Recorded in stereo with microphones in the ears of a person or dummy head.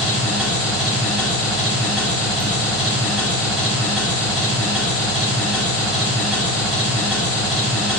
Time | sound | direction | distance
0.0 | an engine running | 5° right (ahead or behind) | 1.6 m